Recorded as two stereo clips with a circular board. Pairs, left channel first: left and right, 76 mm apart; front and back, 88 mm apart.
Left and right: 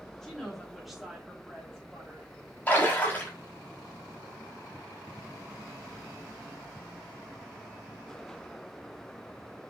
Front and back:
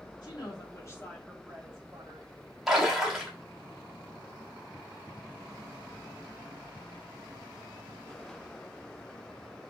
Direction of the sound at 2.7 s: 95° left.